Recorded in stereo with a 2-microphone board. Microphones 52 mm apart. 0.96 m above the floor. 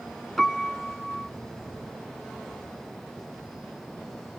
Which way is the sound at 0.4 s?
5° left (ahead or behind).